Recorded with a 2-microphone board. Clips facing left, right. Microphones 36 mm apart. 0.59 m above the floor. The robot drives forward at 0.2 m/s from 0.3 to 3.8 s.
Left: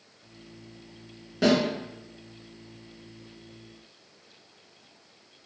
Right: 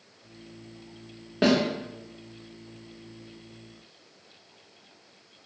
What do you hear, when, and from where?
1.4 s a snare drum: 35° right (ahead or behind), 0.8 m